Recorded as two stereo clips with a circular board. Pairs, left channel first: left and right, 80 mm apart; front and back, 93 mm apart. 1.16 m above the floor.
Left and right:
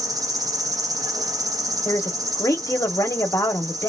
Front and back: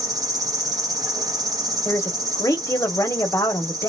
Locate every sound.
0.0 s an insect: 130° right, 1.0 m
1.9 s a woman speaking: 50° left, 1.3 m